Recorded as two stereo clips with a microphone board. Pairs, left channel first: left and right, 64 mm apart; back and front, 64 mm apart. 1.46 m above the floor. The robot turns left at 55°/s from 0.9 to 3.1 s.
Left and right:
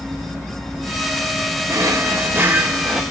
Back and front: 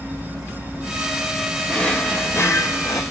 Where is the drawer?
100° right, 1.9 m; by 3.0 s 175° right, 1.9 m.